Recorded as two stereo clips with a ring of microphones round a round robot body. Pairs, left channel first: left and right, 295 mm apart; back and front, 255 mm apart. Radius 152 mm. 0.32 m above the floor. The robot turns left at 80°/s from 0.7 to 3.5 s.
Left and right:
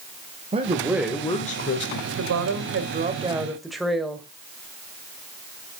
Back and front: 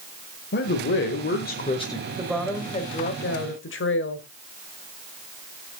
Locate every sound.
0.5 s a man speaking: 155° right, 1.2 m; by 2.0 s 100° left, 1.2 m
2.1 s a woman speaking: 70° right, 1.7 m; by 4.3 s straight behind, 1.7 m